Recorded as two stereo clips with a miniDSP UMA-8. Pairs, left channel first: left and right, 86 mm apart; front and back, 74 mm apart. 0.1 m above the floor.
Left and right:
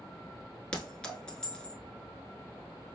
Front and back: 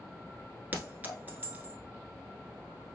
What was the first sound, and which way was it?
A clink, 155° left.